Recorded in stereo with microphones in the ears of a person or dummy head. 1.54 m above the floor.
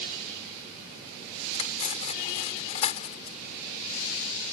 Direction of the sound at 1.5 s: 35° left (ahead or behind).